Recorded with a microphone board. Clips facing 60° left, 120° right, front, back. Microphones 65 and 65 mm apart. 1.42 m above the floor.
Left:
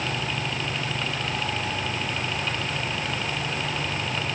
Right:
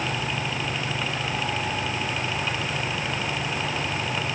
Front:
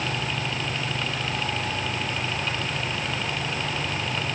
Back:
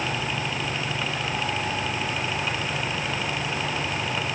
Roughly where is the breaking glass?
No breaking glass in this recording.